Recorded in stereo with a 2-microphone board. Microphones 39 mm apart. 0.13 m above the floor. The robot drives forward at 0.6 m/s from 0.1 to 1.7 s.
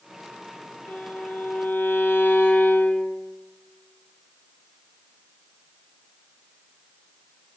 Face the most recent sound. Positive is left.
turn(degrees=70)  # may be behind; listen again after turning